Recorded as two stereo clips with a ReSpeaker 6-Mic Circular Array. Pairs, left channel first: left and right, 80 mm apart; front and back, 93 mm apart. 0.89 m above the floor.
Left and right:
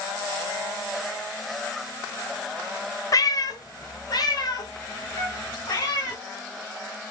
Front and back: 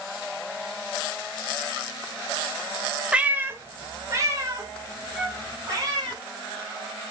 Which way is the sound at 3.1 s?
105° left.